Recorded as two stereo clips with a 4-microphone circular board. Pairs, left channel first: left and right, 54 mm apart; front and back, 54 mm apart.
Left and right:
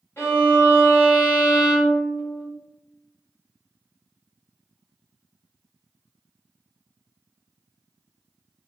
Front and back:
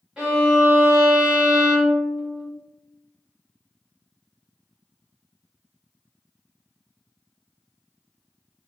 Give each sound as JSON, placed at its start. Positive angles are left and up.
{"t": 0.2, "sound": "a violin", "azimuth_deg": 105, "distance_m": 1.4}